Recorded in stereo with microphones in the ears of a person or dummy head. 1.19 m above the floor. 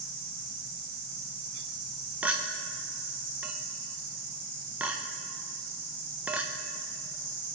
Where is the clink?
10° right (ahead or behind), 0.5 m.